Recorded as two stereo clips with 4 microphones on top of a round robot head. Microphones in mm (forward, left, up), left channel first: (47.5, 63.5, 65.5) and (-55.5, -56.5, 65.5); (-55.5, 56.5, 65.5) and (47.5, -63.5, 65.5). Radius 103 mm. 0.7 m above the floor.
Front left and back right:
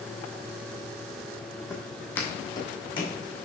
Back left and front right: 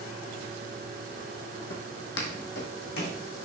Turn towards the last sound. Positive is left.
turn(degrees=105)